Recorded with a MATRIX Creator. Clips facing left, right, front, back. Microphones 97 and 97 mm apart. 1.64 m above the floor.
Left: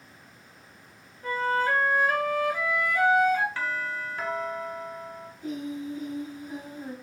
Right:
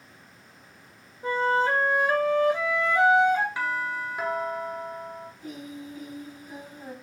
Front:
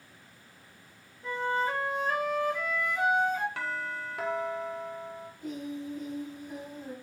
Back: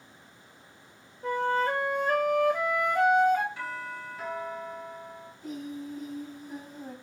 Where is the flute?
155° right, 0.9 m.